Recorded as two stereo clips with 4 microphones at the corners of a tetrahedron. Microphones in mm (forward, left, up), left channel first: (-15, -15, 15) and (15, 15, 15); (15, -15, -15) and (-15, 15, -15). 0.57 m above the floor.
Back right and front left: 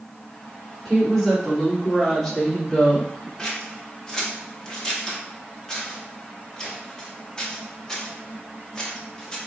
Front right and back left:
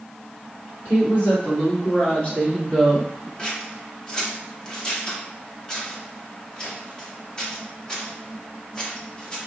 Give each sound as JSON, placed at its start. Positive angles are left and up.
{"t": 0.8, "sound": "a woman speaking", "azimuth_deg": -45, "distance_m": 1.9}
{"t": 3.4, "sound": "scissors", "azimuth_deg": -80, "distance_m": 0.9}